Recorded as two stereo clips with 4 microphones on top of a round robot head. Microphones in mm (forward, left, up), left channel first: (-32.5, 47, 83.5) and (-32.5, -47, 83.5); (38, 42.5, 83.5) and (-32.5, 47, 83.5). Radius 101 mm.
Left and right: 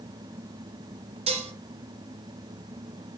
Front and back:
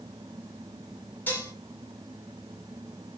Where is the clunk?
I don't hear a clunk.